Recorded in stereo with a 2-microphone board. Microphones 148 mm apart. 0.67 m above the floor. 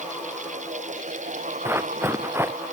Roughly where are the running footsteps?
Centre.